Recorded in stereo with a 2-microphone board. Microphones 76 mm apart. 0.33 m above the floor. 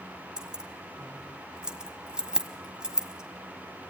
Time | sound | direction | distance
0.4 | keys jangling | 10° right (ahead or behind) | 1.4 m